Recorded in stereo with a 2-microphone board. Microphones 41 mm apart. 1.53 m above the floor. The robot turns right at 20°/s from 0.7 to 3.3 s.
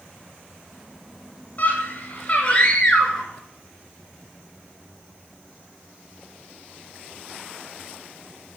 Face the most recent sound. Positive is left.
turn(degrees=165)